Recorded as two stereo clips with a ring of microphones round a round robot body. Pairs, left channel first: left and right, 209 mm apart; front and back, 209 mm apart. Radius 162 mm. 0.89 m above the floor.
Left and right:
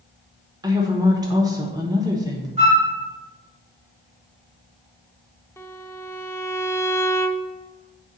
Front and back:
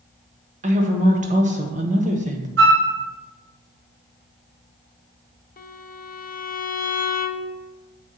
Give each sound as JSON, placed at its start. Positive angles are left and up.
{"t": 0.6, "sound": "a woman speaking", "azimuth_deg": -155, "distance_m": 1.1}
{"t": 2.6, "sound": "a flute", "azimuth_deg": -155, "distance_m": 1.6}
{"t": 5.6, "sound": "a violin", "azimuth_deg": 15, "distance_m": 0.7}